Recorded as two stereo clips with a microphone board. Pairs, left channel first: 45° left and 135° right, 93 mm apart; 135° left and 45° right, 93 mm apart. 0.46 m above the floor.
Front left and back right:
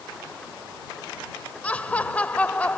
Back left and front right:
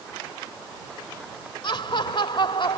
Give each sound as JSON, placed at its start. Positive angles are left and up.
{"t": 1.6, "sound": "laughter", "azimuth_deg": 120}